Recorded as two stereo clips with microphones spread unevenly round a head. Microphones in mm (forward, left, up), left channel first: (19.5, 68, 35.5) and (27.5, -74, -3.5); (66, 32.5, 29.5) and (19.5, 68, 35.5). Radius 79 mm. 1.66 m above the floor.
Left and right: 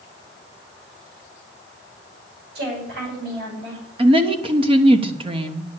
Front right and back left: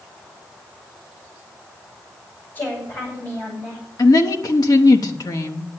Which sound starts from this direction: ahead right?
A woman speaking, at 4.0 s.